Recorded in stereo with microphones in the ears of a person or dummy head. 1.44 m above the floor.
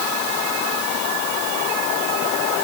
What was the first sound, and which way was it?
Only background noise.